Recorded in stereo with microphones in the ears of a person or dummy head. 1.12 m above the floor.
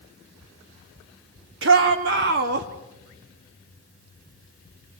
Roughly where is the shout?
Right.